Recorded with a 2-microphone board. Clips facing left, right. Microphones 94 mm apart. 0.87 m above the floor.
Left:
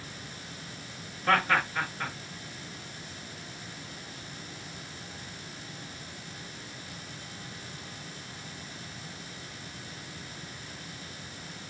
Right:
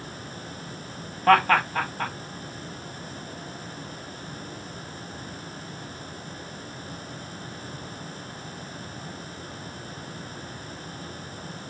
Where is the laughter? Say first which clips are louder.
Right 7 dB; 55° right (ahead or behind), 0.9 m.